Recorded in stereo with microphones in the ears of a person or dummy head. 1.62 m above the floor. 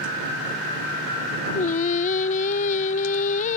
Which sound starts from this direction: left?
Singing, at 1.6 s.